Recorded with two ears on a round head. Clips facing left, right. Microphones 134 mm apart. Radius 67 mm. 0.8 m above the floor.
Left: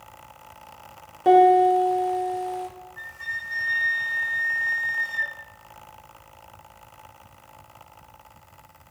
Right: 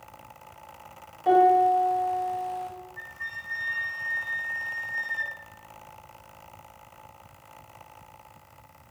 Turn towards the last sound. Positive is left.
turn(degrees=40)  # may be behind; listen again after turning